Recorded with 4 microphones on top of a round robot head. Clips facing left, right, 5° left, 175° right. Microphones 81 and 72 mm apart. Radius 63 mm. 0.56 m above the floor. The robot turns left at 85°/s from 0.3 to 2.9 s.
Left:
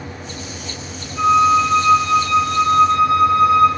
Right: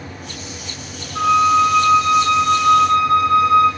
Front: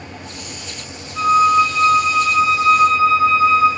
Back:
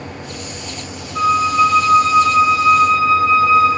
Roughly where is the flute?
Behind right.